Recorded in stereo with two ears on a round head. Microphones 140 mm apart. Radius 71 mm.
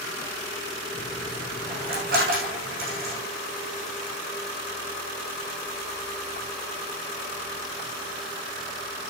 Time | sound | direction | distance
0.9 | a dropped coin | 60° right (ahead or behind) | 7.5 m